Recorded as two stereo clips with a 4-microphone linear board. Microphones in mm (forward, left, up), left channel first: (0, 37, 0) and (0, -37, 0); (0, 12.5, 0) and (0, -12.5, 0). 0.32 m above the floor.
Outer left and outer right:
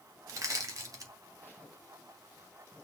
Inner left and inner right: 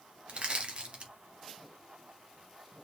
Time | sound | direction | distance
0.3 | crushing | 50° right (ahead or behind) | 0.8 m